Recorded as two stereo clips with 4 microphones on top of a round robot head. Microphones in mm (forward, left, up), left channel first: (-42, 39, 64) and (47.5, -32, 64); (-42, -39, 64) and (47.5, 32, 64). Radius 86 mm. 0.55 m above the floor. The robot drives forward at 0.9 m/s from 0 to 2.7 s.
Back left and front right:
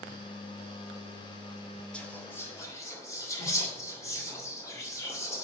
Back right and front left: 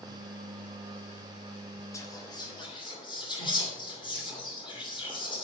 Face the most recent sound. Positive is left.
turn(degrees=-165)